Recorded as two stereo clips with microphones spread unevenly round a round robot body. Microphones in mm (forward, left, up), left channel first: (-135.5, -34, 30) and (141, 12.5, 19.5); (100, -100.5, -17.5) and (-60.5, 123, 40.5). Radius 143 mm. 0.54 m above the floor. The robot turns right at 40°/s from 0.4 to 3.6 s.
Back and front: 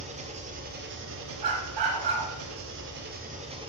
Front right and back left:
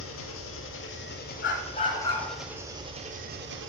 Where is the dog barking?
5° right, 2.5 m; by 2.3 s 30° left, 2.5 m.